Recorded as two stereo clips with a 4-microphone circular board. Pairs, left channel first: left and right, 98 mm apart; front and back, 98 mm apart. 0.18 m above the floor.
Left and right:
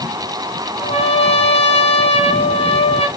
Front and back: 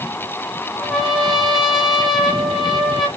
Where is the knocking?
I don't hear knocking.